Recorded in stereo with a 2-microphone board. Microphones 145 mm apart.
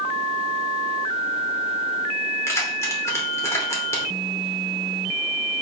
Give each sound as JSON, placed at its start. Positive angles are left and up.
{"t": 2.5, "sound": "keys jangling", "side_deg": 20, "distance_m": 2.5}